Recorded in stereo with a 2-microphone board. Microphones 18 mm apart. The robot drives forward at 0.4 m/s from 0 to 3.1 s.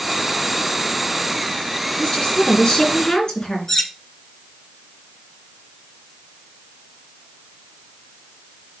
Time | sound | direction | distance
2.0 | a woman speaking | 55° left (ahead or behind) | 3 m
3.7 | cutlery clinking | 25° left (ahead or behind) | 1.2 m